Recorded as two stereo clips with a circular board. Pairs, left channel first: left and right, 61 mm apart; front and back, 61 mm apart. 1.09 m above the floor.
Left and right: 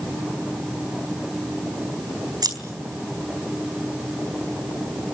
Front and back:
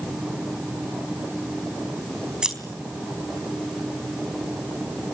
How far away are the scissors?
About 4 m.